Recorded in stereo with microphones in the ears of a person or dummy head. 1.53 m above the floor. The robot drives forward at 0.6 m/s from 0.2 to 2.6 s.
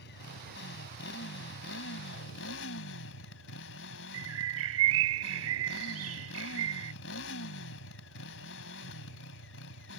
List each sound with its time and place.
0.0 s a motorcycle: 60° left (ahead or behind); by 10.0 s 70° left (ahead or behind)
4.1 s a bird: 80° right